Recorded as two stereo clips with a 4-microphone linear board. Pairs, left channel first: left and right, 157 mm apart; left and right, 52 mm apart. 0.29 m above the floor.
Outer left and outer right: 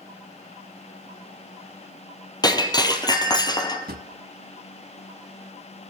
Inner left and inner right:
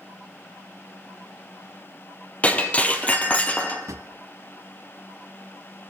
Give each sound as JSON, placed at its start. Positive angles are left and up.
{"t": 2.4, "sound": "breaking glass", "side_deg": 25, "distance_m": 2.5}
{"t": 3.9, "sound": "a drawer", "side_deg": -80, "distance_m": 1.3}